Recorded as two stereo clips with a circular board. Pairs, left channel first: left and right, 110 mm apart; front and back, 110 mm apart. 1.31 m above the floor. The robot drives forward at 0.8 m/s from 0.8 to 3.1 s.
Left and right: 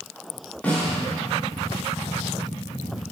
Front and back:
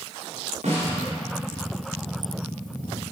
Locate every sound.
0.6 s a snare drum: 165° left, 3 m; by 1.0 s 170° left, 3.5 m